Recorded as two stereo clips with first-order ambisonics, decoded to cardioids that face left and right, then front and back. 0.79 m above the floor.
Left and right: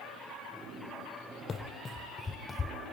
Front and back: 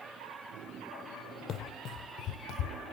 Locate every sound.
1.5 s running footsteps: 25° left, 0.9 m; by 2.8 s 15° left, 1.4 m